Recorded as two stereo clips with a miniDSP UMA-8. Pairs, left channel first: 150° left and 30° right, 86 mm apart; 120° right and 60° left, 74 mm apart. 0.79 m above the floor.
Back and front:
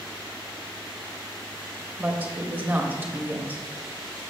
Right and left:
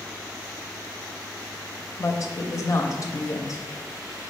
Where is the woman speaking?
95° right, 0.5 m.